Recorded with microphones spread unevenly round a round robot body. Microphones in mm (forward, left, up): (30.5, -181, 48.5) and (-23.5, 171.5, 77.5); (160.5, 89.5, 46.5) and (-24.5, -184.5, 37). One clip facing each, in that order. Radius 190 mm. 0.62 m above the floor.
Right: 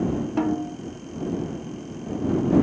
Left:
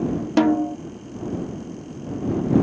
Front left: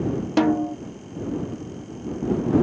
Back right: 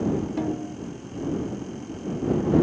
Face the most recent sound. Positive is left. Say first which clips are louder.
# left 9 dB, front left 8 dB
turn(degrees=65)